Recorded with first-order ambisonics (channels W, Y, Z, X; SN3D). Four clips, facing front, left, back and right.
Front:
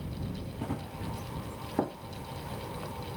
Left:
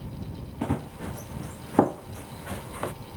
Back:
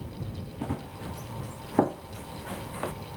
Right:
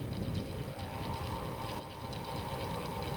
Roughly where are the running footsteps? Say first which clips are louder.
Left 9 dB, back 3 dB; left.